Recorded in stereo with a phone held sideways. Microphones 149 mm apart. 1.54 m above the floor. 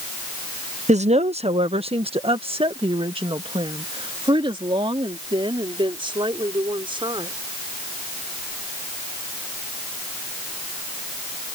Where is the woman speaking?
55° right (ahead or behind); by 7.3 s 35° right (ahead or behind).